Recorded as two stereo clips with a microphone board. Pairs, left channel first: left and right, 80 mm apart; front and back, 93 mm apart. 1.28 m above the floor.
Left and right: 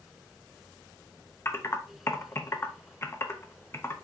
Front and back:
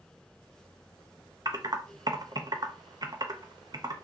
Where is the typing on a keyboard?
140° left, 0.5 m.